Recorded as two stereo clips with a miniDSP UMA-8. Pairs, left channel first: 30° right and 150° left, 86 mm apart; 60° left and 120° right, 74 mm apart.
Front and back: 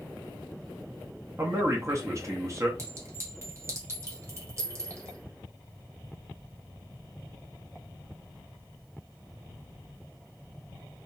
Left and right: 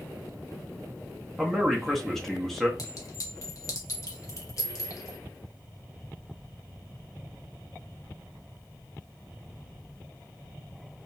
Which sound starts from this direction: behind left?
A man speaking, at 1.4 s.